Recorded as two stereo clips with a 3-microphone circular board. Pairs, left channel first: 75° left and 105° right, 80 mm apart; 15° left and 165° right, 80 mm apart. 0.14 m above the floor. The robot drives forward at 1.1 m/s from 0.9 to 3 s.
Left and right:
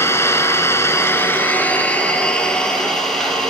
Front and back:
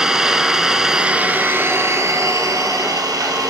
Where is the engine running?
115° left, 1.6 m; by 3.5 s 160° left, 3 m.